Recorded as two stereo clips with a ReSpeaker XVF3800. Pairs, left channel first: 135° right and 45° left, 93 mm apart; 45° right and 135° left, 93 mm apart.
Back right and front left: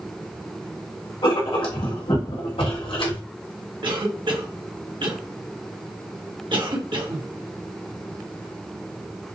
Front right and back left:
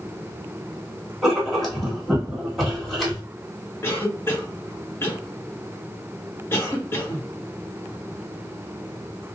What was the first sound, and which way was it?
Writing, 135° right.